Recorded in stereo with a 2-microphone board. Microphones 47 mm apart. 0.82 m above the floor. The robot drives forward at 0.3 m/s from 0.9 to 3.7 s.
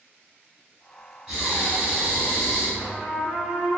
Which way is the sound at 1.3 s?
20° right (ahead or behind).